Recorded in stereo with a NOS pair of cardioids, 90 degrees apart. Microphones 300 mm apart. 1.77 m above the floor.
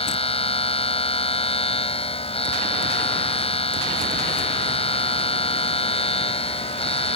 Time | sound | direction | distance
0.0 | a machine running | 20° left | ?